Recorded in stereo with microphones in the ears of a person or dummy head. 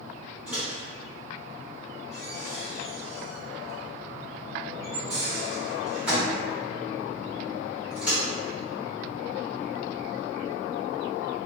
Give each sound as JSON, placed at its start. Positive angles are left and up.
{"t": 0.5, "sound": "a microwave", "side_deg": -10, "distance_m": 1.4}